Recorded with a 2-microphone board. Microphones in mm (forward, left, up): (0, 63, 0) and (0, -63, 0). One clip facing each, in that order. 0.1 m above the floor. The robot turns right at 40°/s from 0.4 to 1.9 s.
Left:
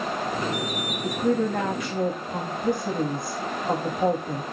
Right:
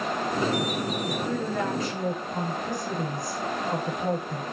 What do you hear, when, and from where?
1.0 s a woman speaking: 85° left, 5.5 m; by 4.4 s 120° left, 5.5 m